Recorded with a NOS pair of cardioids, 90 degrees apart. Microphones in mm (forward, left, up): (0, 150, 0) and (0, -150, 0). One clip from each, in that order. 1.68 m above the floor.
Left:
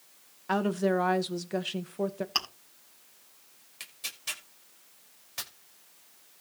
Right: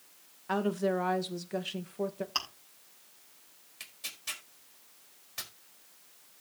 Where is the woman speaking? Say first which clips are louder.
Left 3 dB; 20° left, 1.5 m.